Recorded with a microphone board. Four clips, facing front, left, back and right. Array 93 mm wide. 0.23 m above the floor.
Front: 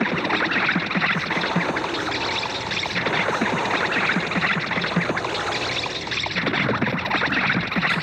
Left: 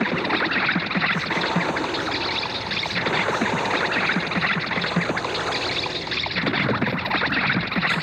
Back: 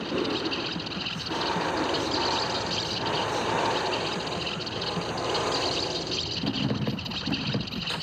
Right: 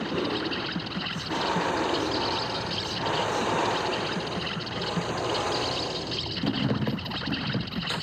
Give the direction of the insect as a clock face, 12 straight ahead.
11 o'clock.